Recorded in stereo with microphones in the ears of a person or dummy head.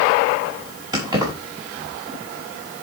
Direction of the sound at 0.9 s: 25° right (ahead or behind).